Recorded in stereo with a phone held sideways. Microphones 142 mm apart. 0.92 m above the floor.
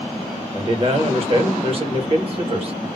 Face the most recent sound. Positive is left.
turn(degrees=-40)  # may be behind; listen again after turning